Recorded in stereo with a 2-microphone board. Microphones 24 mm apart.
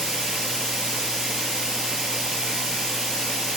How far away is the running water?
About 5 m.